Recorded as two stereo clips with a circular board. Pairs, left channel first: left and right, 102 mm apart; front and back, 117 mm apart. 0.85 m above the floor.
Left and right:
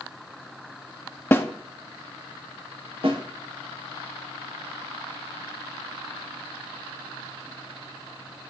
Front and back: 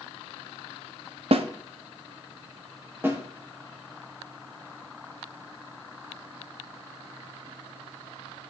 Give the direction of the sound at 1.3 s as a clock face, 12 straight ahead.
7 o'clock.